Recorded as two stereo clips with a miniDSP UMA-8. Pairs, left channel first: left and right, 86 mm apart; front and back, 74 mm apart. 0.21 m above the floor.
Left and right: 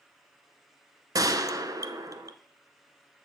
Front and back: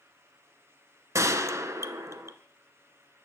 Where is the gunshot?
135° right, 0.6 m.